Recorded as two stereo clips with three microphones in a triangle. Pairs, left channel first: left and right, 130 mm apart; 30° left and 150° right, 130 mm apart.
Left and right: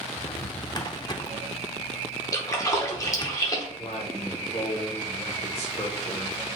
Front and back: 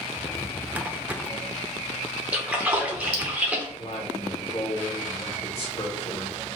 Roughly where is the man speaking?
Ahead left.